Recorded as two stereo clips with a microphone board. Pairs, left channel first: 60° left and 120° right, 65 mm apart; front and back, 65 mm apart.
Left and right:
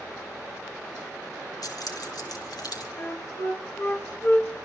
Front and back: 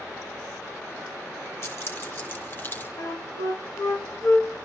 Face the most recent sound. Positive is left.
turn(degrees=10)